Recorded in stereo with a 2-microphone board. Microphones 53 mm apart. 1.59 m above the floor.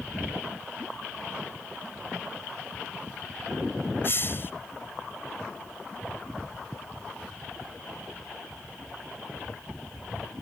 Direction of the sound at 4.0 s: 45° left (ahead or behind).